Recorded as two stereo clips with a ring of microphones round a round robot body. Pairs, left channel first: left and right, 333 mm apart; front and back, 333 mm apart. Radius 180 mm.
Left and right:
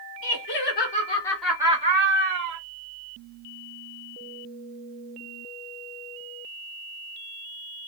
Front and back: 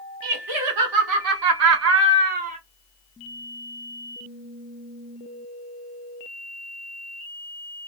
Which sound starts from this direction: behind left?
Laughter, at 0.2 s.